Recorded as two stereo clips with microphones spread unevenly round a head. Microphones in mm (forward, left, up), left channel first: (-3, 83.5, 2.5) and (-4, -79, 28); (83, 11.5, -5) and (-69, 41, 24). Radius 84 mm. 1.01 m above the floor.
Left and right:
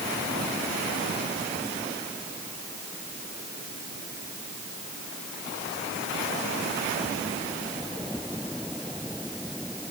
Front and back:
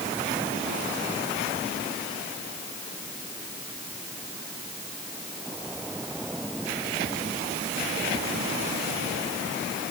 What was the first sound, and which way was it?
Only background noise.